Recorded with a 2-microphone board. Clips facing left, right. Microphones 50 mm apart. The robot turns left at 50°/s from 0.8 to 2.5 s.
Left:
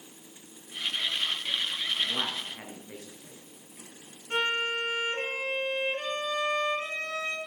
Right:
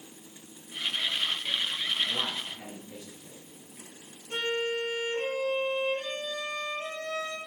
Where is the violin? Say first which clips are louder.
Left 2 dB; 60° left (ahead or behind), 3 m.